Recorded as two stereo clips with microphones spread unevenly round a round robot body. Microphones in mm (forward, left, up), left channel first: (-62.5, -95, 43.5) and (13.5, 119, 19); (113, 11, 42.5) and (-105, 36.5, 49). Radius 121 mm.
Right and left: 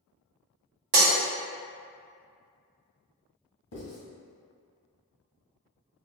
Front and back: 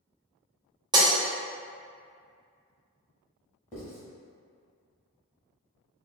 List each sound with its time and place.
0.9 s breaking glass: 100° left, 1.2 m
3.7 s writing: 65° right, 1.5 m